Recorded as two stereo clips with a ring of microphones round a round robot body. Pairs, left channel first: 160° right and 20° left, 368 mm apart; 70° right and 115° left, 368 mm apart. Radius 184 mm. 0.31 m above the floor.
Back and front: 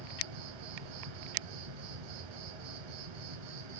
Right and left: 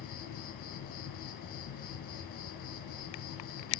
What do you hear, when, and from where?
0.0 s an insect: straight ahead, 1.6 m